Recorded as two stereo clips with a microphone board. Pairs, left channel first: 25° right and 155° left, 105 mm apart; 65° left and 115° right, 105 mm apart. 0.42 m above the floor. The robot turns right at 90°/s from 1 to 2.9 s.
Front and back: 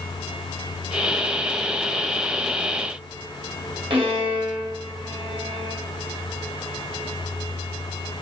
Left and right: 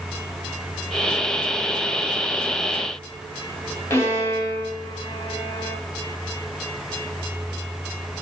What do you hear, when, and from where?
3.9 s a violin: 130° left, 3 m